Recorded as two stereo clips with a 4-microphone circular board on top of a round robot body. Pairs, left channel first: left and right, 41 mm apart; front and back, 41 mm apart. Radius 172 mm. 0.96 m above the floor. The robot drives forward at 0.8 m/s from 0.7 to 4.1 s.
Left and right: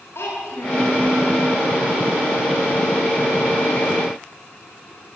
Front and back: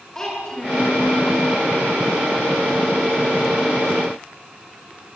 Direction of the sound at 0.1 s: 75° left.